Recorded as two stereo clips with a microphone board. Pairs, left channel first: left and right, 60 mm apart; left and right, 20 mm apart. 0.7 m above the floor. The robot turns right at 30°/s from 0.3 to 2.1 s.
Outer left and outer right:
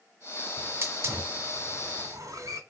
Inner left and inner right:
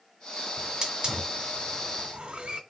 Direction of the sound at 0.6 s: 30° right (ahead or behind).